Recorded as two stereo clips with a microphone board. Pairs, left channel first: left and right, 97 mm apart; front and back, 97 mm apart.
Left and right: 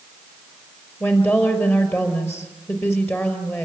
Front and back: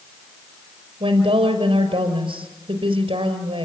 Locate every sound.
1.0 s a woman speaking: 155° left, 5 m